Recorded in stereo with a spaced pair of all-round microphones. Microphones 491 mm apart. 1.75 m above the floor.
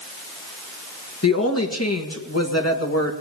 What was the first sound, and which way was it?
A woman speaking, 30° left (ahead or behind).